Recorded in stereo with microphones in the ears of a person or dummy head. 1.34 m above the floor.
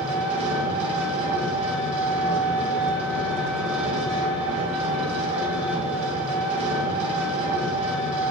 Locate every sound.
0.0 s an engine running: 30° right (ahead or behind), 1.6 m